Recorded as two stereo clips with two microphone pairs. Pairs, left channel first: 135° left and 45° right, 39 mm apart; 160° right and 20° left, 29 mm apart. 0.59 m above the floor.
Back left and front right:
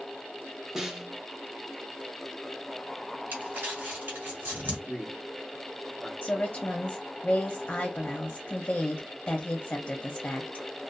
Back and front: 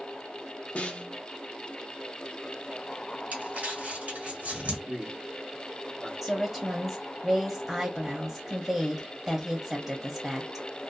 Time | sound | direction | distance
0.8 | a snare drum | 125° right | 0.6 m
3.3 | crumpling | 15° right | 1.4 m
4.9 | a man speaking | 20° left | 1.1 m
6.2 | a woman speaking | 85° left | 0.7 m